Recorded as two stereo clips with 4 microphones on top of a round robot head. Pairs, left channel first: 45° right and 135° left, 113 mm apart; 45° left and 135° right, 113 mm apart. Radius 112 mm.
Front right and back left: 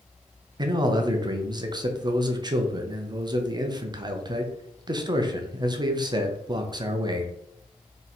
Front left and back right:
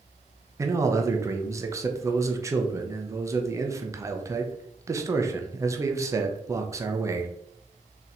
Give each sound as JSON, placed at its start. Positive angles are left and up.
{"t": 0.6, "sound": "a man speaking", "azimuth_deg": 170, "distance_m": 0.9}